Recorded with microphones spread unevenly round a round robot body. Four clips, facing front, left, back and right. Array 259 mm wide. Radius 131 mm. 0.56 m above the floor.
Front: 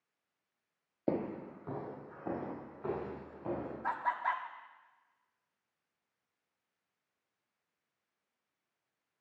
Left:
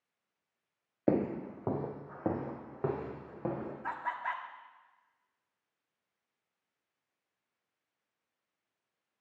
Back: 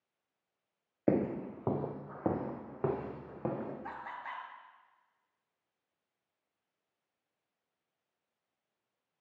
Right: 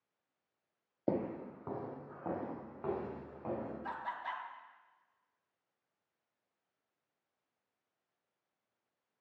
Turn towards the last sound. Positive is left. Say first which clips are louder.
# left 4 dB, front 9 dB
turn(degrees=15)